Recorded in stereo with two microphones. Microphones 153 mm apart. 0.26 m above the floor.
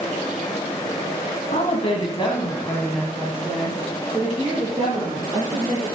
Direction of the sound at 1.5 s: 45° left (ahead or behind).